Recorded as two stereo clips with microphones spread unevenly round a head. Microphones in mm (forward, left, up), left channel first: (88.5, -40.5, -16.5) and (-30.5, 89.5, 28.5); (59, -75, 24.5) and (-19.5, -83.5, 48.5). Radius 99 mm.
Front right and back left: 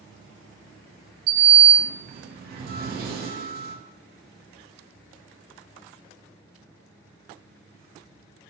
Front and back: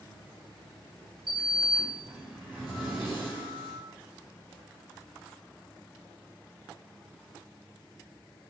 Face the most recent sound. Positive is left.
turn(degrees=95)